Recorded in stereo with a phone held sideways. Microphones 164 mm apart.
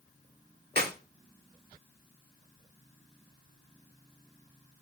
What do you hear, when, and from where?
0.8 s a clap: 75° right (ahead or behind), 2.5 m